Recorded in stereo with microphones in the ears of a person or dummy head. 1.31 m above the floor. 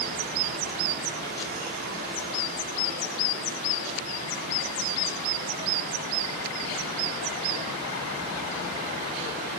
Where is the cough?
No cough in this recording.